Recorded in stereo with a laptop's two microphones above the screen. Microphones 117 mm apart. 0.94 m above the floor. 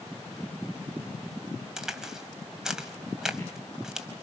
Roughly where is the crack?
Centre.